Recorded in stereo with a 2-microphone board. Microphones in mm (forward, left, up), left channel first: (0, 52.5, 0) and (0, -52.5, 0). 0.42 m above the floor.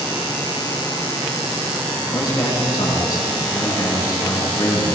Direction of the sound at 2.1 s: 45° left (ahead or behind).